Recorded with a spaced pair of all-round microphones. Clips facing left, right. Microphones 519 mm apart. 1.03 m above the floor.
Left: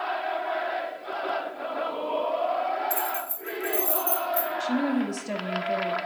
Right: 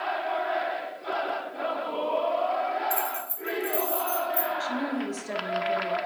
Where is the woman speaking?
50° left (ahead or behind), 0.7 m.